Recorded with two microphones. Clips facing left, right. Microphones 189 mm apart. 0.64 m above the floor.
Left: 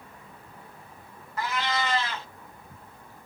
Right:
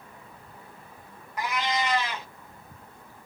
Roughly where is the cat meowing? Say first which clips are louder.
Right 1 dB; centre.